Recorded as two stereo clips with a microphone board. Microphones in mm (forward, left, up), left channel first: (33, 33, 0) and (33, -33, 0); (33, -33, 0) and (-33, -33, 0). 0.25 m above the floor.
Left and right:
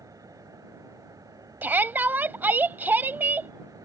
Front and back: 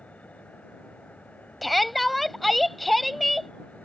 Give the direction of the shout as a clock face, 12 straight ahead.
3 o'clock.